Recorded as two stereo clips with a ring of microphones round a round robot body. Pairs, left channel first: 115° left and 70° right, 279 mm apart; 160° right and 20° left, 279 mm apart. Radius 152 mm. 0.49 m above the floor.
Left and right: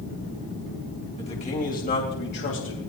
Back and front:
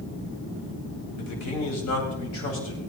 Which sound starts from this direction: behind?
A man speaking, at 1.2 s.